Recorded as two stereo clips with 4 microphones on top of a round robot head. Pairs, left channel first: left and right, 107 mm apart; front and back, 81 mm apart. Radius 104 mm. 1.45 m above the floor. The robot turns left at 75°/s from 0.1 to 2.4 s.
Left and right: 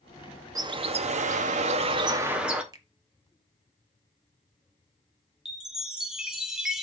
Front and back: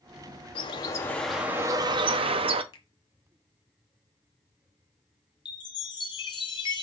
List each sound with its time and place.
0.6 s a bird: 35° right, 0.7 m; by 2.6 s 170° right, 0.7 m
2.7 s a finger snap: 35° right, 1.3 m
5.5 s a chime: 5° right, 0.8 m